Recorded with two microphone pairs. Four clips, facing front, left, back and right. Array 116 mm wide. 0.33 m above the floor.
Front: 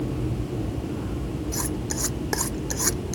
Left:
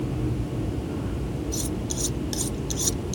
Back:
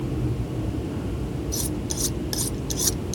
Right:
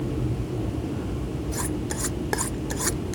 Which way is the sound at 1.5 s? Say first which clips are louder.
Right 1 dB, even; 50° right.